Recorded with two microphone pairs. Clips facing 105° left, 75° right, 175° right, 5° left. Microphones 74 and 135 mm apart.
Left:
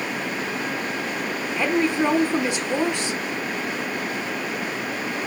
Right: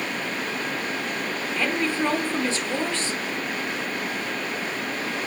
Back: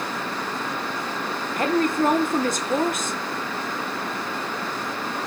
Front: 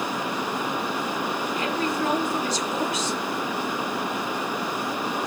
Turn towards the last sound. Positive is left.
turn(degrees=170)